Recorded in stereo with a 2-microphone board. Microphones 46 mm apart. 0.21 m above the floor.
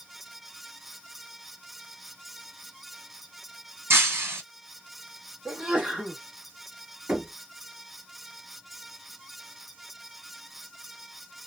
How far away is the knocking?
About 1.0 m.